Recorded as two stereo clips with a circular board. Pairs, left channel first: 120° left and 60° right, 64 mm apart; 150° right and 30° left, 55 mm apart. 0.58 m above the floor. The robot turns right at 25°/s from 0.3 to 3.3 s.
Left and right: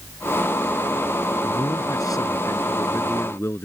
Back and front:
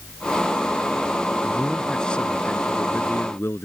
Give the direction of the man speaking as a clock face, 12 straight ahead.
8 o'clock.